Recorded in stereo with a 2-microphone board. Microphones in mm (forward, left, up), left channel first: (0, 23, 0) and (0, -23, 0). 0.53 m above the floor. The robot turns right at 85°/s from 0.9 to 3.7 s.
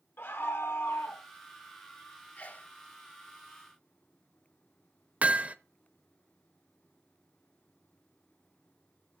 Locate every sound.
0.2 s a scream: 50° left (ahead or behind), 1.1 m; by 1.2 s 55° left (ahead or behind), 1.1 m
2.4 s a sneeze: 30° left (ahead or behind), 1.4 m; by 2.7 s 40° left (ahead or behind), 1.4 m
5.2 s hammering: 30° right (ahead or behind), 0.6 m